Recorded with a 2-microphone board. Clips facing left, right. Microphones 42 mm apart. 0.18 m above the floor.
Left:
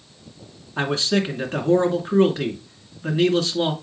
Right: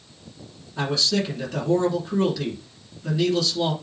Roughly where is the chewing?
I don't hear chewing.